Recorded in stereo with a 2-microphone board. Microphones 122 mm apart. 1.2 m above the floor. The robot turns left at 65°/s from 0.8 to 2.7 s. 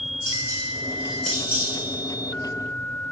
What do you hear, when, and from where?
0.3 s dishes clattering: 25° right (ahead or behind), 2.5 m; by 1.7 s 30° left (ahead or behind), 2.5 m